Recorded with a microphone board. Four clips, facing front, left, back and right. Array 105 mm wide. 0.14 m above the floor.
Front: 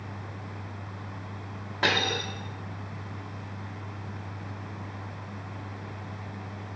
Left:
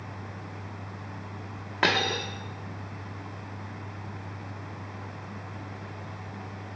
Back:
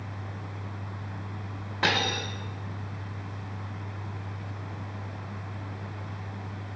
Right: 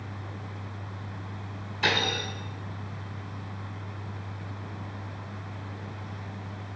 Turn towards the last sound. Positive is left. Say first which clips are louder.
# left 2 dB, even
turn(degrees=85)